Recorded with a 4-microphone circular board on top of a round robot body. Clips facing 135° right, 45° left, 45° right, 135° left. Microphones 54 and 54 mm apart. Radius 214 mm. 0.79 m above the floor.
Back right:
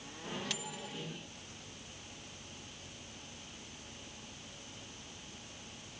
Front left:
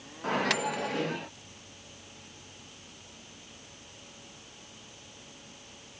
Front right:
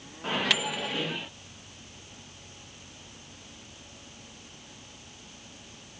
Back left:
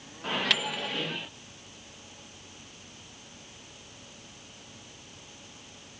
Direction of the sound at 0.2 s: 40° left.